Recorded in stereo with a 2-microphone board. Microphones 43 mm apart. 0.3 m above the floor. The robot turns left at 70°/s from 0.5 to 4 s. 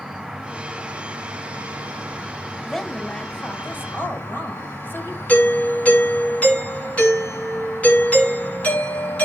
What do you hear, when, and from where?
0.0 s an insect: 5° right, 3.5 m; by 9.2 s 110° left, 3.5 m
2.6 s a woman speaking: 165° right, 1.7 m; by 5.2 s 95° left, 1.7 m
5.3 s a doorbell: 30° left (ahead or behind), 3.5 m